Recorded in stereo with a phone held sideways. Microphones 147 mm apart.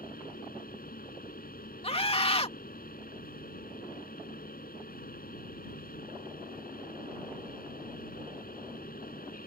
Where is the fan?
80° left.